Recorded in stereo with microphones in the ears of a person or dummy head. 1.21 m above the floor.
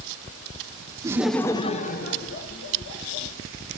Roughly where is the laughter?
Centre.